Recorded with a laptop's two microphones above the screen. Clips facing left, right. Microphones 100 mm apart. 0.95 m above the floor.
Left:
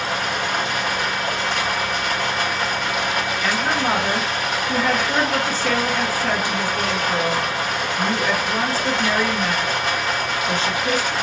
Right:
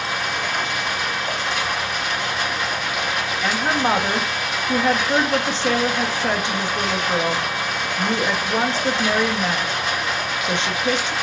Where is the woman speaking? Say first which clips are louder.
Right 2 dB; 25° right (ahead or behind), 1.0 m.